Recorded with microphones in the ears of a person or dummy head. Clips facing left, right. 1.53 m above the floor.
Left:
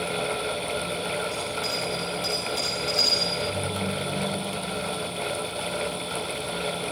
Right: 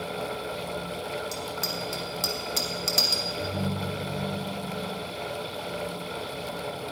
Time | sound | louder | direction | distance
1.3 | a bicycle bell | left 3 dB | 70° right (ahead or behind) | 2 m
3.4 | a ringtone | right 1 dB | 60° right (ahead or behind) | 1.6 m